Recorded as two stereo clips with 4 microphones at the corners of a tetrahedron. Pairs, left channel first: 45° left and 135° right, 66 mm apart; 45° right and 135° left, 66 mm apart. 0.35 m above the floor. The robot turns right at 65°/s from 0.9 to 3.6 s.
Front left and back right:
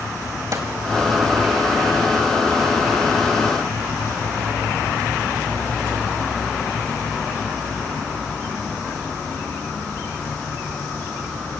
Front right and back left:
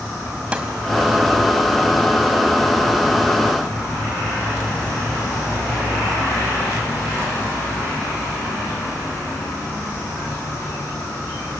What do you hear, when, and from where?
0.5 s a snare drum: 160° right, 2 m